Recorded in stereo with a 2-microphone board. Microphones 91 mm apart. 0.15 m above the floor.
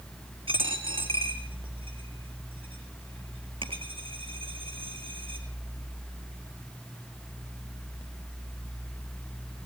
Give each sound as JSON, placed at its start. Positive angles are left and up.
{"t": 0.5, "sound": "a dropped coin", "side_deg": -75, "distance_m": 4.5}